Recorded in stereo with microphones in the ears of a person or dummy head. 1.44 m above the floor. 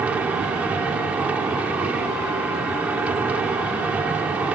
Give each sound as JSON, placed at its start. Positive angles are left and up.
{"t": 0.0, "sound": "a machine running", "side_deg": -5}